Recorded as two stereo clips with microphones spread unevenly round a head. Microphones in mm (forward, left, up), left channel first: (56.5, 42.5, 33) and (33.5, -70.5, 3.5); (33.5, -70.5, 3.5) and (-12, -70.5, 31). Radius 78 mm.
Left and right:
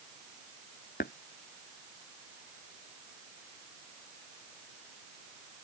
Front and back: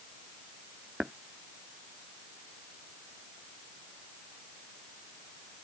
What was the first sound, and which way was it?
Tapping, 100° left.